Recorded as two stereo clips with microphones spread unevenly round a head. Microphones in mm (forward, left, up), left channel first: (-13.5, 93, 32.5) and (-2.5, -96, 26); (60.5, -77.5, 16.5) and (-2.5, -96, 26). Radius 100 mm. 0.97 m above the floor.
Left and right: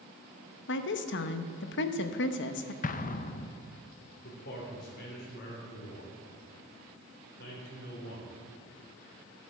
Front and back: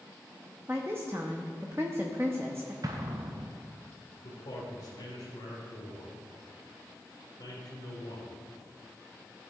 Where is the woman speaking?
120° left, 0.8 m.